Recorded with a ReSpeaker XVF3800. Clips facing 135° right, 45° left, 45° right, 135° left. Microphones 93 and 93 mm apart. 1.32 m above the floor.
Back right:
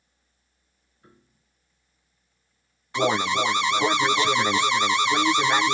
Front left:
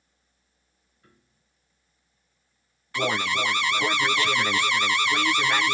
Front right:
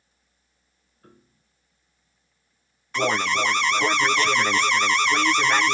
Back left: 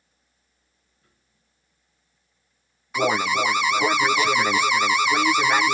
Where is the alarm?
155° right.